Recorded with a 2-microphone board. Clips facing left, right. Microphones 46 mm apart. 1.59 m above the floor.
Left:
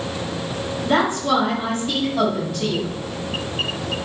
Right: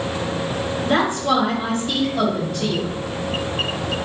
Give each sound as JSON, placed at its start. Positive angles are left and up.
{"t": 0.8, "sound": "a woman speaking", "side_deg": 15, "distance_m": 1.1}